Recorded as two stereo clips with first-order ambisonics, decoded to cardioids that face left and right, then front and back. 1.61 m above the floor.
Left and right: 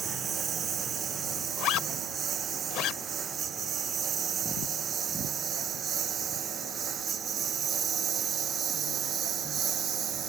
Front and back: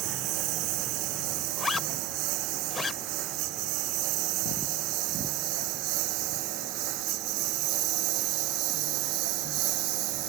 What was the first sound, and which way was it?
A lawn mower, 155° right.